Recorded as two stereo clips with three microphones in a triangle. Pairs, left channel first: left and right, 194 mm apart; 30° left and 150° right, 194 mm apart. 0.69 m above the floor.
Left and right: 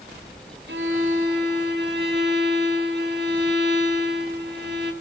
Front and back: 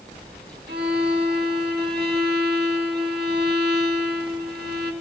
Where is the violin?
120° right, 4 m.